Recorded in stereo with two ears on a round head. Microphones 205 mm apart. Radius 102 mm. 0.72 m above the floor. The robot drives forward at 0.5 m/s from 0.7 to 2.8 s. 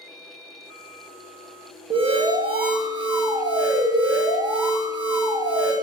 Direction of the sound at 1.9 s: 25° right (ahead or behind).